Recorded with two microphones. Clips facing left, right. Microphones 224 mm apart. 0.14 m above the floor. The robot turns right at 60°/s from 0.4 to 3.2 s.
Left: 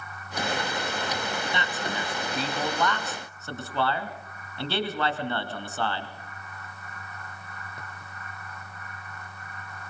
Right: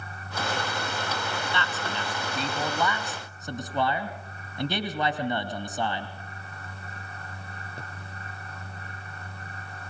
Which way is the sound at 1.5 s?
20° left (ahead or behind).